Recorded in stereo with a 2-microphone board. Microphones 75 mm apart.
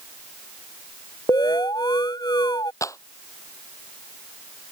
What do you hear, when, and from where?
1.3 s an alarm: 55° left (ahead or behind)
2.8 s a clap: 40° left (ahead or behind)